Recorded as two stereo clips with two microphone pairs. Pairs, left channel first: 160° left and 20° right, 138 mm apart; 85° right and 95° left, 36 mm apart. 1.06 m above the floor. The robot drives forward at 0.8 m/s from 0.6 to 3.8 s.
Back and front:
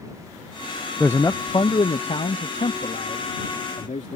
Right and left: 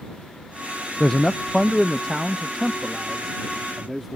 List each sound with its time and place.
1.0 s a man speaking: 125° right; by 4.2 s 175° right